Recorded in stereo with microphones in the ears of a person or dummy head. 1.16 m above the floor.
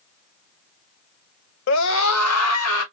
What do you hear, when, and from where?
1.7 s a scream: 60° left (ahead or behind), 1.1 m; by 2.8 s 80° left, 2 m